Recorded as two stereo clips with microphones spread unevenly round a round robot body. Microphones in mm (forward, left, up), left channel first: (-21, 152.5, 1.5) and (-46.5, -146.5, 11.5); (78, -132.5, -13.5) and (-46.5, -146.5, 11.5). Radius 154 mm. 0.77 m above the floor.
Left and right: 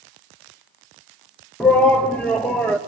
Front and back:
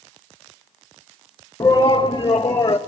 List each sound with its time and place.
1.6 s a shout: 5° left, 1.0 m